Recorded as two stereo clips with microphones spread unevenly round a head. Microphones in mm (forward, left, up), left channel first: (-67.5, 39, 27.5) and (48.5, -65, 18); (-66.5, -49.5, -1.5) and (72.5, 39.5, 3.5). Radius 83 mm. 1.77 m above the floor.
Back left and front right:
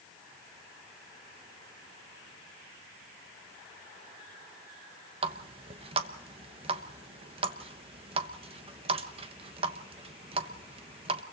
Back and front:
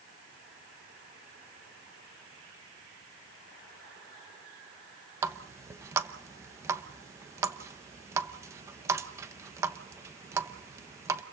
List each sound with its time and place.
5.2 s a running tap: 20° right, 1.0 m